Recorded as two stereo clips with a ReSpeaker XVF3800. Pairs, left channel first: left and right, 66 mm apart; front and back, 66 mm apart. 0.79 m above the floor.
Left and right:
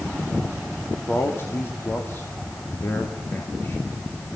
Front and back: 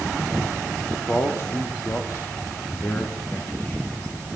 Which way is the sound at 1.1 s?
45° left.